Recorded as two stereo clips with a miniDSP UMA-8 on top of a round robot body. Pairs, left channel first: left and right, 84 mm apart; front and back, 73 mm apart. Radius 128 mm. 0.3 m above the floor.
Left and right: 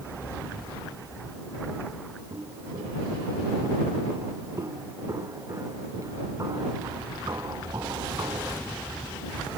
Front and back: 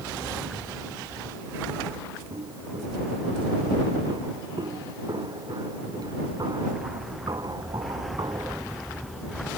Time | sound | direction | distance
2.3 | footsteps | 150° right | ?